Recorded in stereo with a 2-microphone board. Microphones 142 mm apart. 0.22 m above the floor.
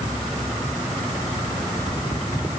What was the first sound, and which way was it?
Only background noise.